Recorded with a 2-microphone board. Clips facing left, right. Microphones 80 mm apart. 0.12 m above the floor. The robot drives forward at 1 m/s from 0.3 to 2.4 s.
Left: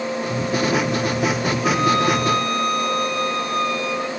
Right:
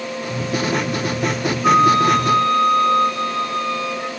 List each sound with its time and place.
1.6 s a flute: 35° right (ahead or behind), 1.0 m; by 4.1 s 25° right (ahead or behind), 1.3 m